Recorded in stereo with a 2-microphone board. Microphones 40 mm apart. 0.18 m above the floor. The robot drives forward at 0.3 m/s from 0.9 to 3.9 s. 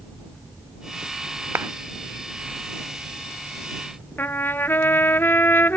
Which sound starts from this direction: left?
A trumpet, at 4.2 s.